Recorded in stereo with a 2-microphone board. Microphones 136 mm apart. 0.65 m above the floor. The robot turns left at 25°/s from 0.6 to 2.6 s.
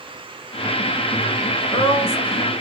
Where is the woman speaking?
35° left (ahead or behind), 1.6 m; by 2.5 s 50° left (ahead or behind), 1.6 m.